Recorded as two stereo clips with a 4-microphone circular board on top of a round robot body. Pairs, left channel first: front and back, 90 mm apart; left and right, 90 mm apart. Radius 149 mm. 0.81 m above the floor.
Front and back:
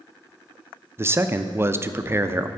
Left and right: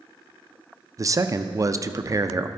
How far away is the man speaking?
About 0.6 m.